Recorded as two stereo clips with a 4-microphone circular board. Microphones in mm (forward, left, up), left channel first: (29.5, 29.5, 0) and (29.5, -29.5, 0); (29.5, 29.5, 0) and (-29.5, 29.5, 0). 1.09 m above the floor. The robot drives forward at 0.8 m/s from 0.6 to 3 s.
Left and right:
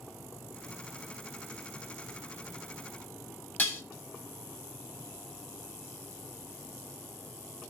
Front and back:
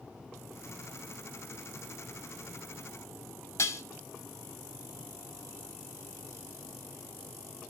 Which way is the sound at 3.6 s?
35° left.